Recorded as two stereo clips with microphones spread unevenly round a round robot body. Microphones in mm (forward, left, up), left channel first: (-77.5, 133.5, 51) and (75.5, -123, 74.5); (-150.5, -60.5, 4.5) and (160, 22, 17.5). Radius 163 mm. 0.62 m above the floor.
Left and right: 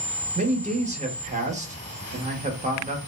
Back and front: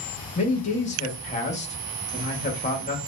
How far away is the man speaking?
About 0.8 m.